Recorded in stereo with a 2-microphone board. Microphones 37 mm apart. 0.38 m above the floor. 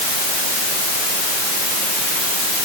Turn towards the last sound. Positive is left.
No sound to turn to.